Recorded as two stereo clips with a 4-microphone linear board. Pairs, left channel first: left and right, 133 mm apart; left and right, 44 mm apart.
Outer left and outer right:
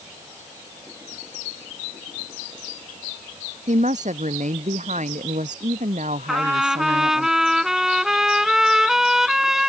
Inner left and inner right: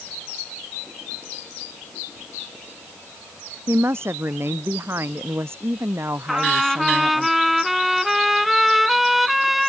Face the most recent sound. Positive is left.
turn(degrees=-5)  # may be behind; listen again after turning